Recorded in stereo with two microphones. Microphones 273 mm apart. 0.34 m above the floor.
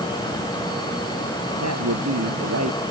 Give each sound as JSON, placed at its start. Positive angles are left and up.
{"t": 1.6, "sound": "a man speaking", "side_deg": -70}